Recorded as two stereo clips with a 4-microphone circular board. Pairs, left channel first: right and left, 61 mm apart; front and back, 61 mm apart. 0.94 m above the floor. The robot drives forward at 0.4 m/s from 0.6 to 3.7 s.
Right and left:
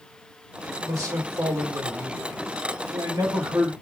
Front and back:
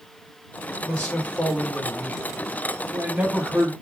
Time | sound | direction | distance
0.8 | a man speaking | 65° left | 1.6 m